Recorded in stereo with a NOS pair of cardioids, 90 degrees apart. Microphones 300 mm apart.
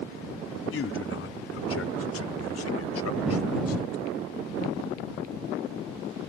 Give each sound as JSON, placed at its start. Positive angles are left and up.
{"t": 0.7, "sound": "a man speaking", "azimuth_deg": 50}